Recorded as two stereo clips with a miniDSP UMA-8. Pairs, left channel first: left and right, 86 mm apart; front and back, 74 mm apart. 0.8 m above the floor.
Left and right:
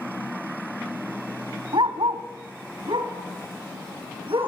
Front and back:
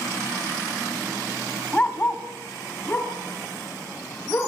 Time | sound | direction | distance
1.7 | a dog barking | 75° right | 2 m